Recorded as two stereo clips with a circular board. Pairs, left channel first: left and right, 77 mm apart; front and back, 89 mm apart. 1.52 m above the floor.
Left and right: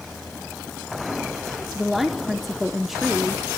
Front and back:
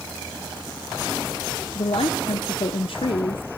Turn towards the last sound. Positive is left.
turn(degrees=-5)